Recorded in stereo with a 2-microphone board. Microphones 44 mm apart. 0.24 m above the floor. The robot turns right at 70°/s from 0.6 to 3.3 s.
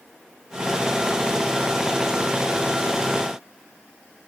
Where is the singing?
I don't hear singing.